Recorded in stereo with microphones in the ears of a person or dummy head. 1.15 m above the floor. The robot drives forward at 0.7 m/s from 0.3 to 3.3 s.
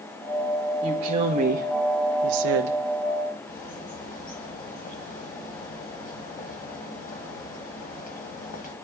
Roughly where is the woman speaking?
Right.